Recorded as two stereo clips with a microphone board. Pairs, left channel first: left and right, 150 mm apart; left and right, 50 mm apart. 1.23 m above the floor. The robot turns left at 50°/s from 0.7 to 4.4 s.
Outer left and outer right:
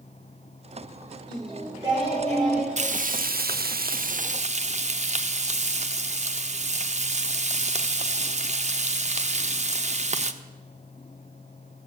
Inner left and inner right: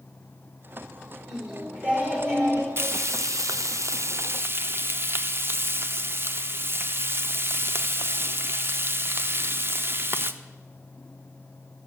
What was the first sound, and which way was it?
Singing, 5° left.